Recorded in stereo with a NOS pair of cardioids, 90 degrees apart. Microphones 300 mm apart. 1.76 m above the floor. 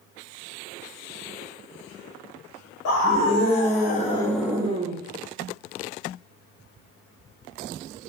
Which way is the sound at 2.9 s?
65° left.